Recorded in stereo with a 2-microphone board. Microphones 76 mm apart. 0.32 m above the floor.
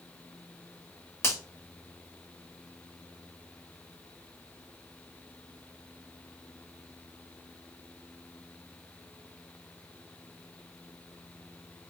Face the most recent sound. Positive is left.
turn(degrees=30)  # may be behind; listen again after turning